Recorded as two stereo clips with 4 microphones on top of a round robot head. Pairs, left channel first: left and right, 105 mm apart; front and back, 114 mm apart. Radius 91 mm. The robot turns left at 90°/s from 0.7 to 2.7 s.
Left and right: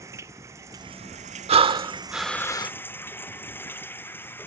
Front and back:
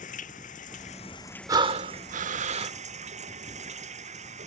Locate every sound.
0.0 s running water: 20° right; by 4.5 s 160° left
1.5 s breathing: 115° right; by 2.7 s 135° left